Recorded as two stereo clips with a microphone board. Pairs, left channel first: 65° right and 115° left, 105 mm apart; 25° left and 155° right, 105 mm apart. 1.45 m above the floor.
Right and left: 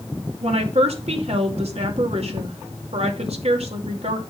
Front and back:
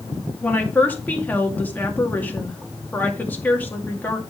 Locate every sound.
0.4 s a woman speaking: 95° left, 2.5 m